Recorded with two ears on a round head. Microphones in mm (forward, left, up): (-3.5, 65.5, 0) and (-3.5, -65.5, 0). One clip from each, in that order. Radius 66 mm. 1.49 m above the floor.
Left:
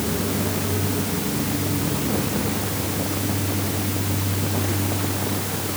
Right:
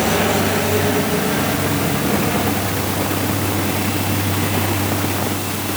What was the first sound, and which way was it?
Only background noise.